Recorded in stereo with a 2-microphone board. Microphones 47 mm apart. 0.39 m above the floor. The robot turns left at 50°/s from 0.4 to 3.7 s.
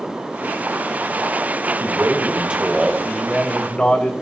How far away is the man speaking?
About 1.7 m.